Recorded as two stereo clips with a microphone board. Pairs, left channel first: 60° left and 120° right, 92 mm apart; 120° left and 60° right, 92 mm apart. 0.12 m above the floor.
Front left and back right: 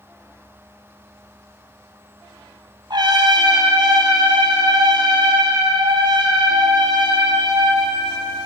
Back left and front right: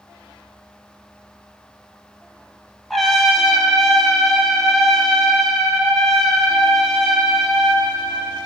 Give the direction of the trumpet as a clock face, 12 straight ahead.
5 o'clock.